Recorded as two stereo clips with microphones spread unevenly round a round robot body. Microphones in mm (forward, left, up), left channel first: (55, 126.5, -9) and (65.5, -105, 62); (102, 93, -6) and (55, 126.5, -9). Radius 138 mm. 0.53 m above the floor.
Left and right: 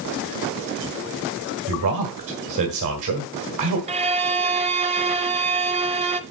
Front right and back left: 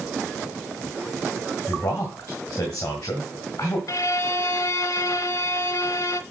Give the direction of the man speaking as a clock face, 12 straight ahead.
3 o'clock.